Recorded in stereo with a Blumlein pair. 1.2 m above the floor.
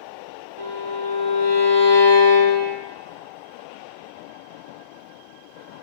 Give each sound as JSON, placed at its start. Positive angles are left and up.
{"t": 0.6, "sound": "a violin", "azimuth_deg": -60, "distance_m": 0.8}